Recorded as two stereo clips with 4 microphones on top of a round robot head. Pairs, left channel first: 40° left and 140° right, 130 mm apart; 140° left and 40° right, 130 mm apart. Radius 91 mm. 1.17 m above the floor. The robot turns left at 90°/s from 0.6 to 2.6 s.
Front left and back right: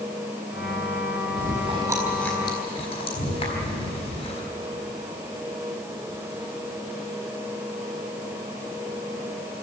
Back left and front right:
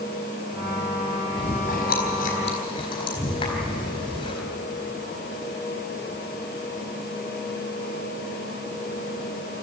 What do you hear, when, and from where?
1.4 s chewing: 165° right, 4 m; by 4.4 s 85° left, 4 m